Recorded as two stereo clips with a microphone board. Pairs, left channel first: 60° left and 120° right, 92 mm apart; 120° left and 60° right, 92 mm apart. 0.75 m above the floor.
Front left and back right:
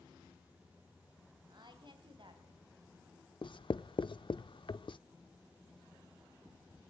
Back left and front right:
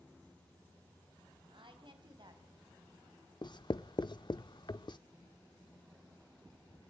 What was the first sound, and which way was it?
A woman speaking, 85° right.